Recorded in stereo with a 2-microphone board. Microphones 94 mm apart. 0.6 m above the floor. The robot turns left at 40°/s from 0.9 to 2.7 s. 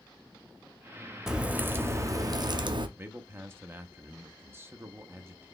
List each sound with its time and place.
1.3 s a crack: 5° right, 0.5 m; by 2.9 s 65° right, 0.5 m
3.0 s a man speaking: 25° right (ahead or behind), 0.7 m